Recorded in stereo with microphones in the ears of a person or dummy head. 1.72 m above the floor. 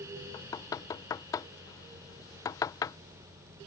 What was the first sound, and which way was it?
Knocking, 20° left (ahead or behind).